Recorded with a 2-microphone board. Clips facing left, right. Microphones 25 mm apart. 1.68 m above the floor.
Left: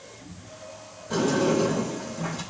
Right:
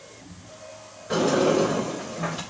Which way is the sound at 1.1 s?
60° right (ahead or behind).